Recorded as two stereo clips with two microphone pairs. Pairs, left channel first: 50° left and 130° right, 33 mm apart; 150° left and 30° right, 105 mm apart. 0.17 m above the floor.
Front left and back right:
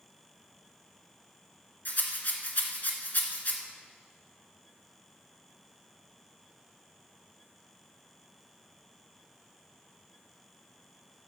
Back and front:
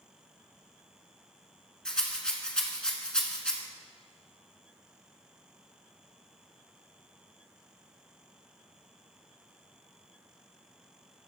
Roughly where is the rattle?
Left.